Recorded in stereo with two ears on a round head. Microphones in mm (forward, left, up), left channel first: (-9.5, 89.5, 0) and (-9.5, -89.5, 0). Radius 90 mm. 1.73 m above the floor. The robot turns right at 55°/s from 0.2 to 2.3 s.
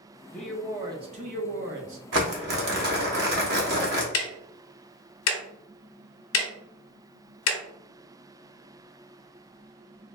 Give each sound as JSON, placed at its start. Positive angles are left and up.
{"t": 0.3, "sound": "a man speaking", "azimuth_deg": 170, "distance_m": 0.8}
{"t": 2.1, "sound": "crumpling", "side_deg": -65, "distance_m": 0.8}
{"t": 4.1, "sound": "ticking", "side_deg": 80, "distance_m": 0.6}